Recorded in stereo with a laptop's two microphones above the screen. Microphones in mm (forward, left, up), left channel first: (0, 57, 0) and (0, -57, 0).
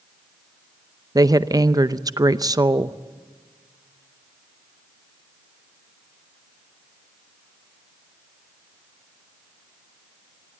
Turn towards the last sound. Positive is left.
turn(degrees=-35)  # may be behind; listen again after turning